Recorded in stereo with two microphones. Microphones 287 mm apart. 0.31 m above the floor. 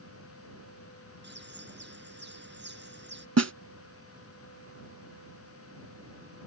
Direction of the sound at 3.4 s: 65° right (ahead or behind).